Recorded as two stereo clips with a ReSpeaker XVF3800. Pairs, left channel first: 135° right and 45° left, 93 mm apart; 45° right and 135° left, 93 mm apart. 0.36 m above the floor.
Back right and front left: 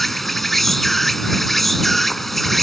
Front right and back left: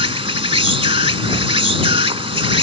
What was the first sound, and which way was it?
An insect, 135° left.